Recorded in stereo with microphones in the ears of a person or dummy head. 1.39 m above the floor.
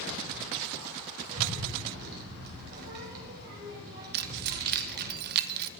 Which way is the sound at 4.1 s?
55° right (ahead or behind).